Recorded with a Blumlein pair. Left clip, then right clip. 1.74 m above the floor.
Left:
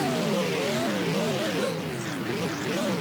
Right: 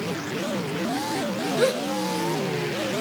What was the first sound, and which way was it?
A gasp, 65° right.